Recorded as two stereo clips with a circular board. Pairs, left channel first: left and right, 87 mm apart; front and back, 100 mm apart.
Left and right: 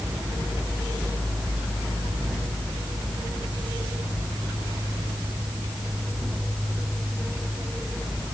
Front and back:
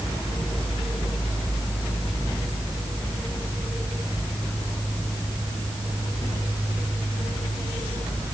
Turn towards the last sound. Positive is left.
No sound to turn to.